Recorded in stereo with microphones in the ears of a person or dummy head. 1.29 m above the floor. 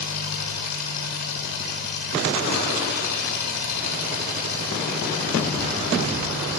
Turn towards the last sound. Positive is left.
turn(degrees=85)